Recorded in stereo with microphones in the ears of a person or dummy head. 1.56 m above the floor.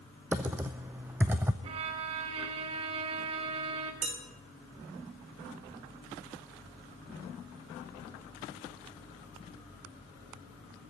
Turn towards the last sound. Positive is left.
turn(degrees=-40)  # may be behind; listen again after turning